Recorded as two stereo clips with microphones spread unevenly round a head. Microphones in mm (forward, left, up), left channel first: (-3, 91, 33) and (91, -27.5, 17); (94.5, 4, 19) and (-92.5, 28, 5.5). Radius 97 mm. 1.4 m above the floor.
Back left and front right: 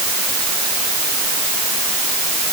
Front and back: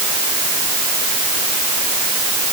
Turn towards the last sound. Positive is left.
No sound to turn to.